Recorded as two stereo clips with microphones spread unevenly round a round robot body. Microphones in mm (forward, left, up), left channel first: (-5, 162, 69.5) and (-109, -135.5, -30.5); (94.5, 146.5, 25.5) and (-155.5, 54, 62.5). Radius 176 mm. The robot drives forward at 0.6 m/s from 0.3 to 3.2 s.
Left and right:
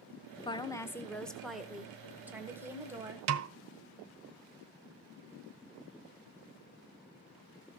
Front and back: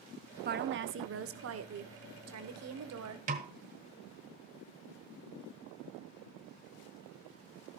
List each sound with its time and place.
0.5 s a woman speaking: 165° left, 0.9 m; by 3.2 s 175° left, 2 m
3.3 s a snare drum: 90° right, 0.9 m